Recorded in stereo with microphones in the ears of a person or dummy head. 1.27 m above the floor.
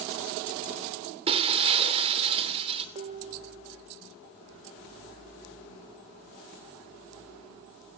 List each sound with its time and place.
1.3 s breaking glass: 30° right (ahead or behind), 2.5 m
3.0 s dishes clattering: 30° right (ahead or behind), 0.7 m